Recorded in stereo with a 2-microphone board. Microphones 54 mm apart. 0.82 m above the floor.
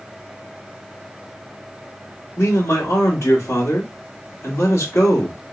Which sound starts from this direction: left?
A man speaking, at 2.4 s.